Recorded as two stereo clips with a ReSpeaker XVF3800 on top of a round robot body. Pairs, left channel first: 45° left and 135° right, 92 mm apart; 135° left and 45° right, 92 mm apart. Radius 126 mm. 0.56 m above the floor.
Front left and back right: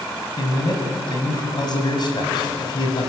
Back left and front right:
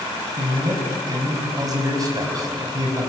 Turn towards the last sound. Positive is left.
turn(degrees=5)